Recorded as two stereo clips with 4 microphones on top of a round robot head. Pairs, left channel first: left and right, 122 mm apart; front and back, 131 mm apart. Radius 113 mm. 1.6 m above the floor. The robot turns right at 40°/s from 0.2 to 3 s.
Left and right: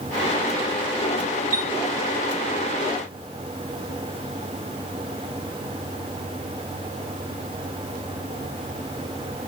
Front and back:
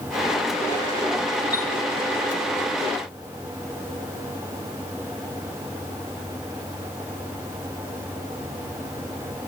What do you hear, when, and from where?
1.5 s a chime: 95° right, 0.8 m; by 1.7 s 85° right, 0.8 m